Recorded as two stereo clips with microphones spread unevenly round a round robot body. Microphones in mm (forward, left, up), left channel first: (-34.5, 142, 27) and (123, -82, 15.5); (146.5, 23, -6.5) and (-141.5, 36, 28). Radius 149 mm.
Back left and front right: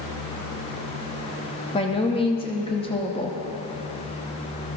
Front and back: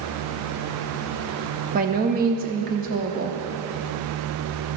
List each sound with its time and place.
1.7 s a woman speaking: 165° left, 0.8 m